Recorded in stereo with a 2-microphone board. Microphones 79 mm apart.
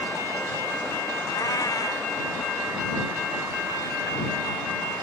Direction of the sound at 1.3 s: 55° left (ahead or behind).